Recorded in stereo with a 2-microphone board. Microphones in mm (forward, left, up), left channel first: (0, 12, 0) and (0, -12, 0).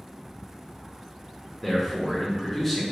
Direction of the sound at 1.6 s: Centre (ahead or behind).